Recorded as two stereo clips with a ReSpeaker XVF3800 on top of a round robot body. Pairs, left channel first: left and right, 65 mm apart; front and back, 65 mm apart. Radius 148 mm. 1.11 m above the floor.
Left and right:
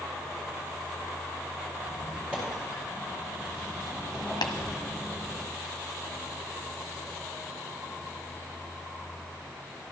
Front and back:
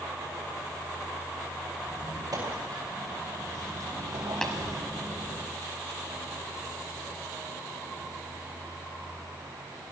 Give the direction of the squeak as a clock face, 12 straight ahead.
5 o'clock.